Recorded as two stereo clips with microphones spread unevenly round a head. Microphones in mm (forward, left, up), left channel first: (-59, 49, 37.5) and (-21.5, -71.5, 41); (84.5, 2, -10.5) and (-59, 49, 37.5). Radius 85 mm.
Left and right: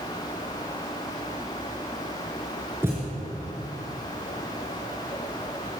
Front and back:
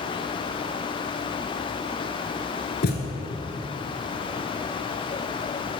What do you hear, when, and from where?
2.8 s a thud: straight ahead, 2 m